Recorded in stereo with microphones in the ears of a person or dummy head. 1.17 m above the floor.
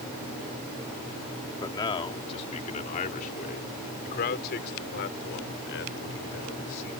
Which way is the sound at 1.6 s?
20° left (ahead or behind).